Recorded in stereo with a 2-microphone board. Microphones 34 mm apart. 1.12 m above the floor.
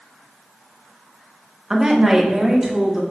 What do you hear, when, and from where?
1.7 s a woman speaking: 20° right (ahead or behind), 1.2 m; by 3.0 s 15° right (ahead or behind), 2.5 m